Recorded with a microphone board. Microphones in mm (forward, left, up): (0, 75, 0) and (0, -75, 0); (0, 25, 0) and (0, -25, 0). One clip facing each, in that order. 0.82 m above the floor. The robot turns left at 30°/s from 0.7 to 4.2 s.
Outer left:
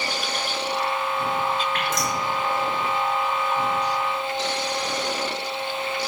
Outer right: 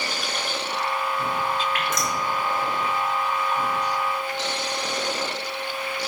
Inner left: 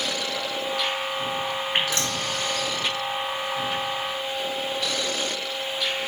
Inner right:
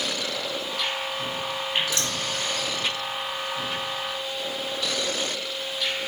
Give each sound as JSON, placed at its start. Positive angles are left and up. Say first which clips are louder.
{"t": 1.7, "sound": "dripping", "louder": "outer left 1 dB, inner left 1 dB", "side_deg": 40, "distance_m": 3.0}